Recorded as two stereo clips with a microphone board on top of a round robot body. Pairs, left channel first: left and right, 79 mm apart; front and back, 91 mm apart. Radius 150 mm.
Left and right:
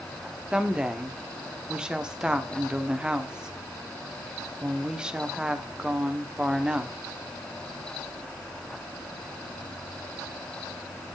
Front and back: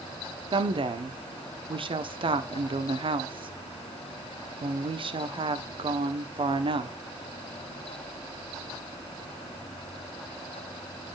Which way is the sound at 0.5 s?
170° right.